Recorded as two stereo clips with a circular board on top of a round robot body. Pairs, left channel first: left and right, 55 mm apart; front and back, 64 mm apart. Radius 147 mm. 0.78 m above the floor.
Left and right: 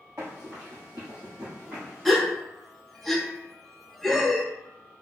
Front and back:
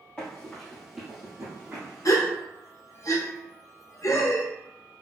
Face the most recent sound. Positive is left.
turn(degrees=5)